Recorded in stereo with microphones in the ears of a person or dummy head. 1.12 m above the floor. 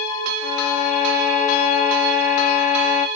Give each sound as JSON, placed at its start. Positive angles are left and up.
{"t": 0.4, "sound": "a violin", "side_deg": 50, "distance_m": 2.0}